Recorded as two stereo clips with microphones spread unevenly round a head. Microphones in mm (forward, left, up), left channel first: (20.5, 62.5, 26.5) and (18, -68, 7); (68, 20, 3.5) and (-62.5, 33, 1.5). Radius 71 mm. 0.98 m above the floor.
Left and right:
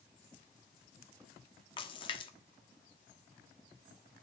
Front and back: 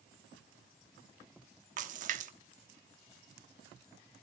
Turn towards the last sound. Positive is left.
turn(degrees=145)